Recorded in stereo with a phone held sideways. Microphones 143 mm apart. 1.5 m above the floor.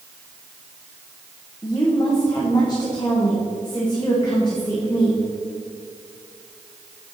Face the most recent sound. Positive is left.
turn(degrees=30)  # may be behind; listen again after turning